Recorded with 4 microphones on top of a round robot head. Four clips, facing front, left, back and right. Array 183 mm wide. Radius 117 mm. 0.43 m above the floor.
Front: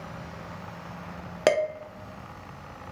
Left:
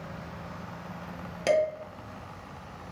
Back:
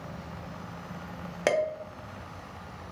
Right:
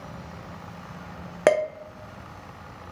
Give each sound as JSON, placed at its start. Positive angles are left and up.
{"t": 1.5, "sound": "dishes clattering", "azimuth_deg": -70, "distance_m": 0.7}